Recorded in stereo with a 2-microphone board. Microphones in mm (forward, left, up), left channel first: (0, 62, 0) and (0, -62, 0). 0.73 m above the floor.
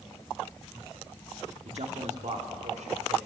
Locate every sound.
1.6 s a man speaking: 60° right (ahead or behind), 1.3 m; by 3.2 s 75° right (ahead or behind), 3 m